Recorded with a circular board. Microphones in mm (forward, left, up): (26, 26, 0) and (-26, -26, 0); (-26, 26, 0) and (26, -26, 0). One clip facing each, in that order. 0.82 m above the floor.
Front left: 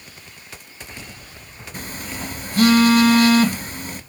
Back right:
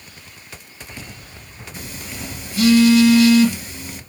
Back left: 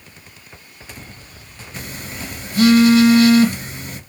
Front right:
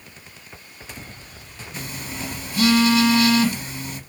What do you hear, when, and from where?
1.7 s a phone buzzing: 85° left, 2 m